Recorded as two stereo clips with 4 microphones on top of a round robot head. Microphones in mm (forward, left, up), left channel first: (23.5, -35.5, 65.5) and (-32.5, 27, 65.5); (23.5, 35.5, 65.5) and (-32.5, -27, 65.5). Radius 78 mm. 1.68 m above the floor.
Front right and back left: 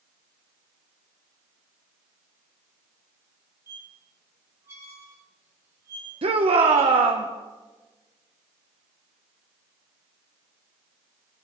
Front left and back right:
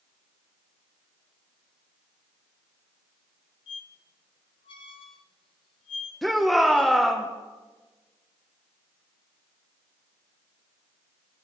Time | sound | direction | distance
3.7 | a squeak | 70° left | 1.1 m
6.2 | a shout | 135° left | 1.7 m